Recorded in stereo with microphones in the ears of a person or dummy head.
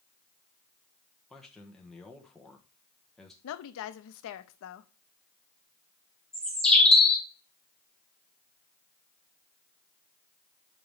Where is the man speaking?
5° left (ahead or behind), 1.3 m.